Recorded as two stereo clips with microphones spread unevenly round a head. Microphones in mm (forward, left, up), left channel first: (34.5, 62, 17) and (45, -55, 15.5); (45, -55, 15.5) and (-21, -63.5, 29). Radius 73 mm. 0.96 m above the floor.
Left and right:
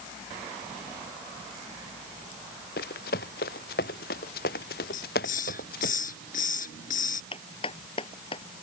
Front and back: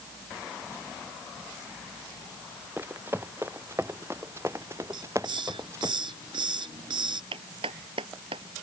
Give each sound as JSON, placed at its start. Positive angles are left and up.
{"t": 2.8, "sound": "running footsteps", "azimuth_deg": 110}
{"t": 4.9, "sound": "a hiss", "azimuth_deg": 135}
{"t": 7.3, "sound": "a clap", "azimuth_deg": 155}